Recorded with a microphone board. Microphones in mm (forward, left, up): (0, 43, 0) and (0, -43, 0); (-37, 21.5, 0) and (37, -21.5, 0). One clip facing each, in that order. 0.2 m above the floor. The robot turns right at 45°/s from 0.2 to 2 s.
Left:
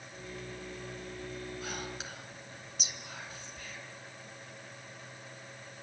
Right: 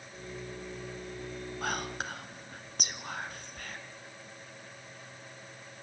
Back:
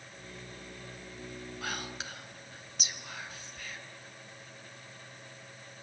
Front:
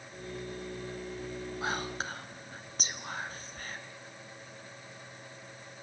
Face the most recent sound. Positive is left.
turn(degrees=-75)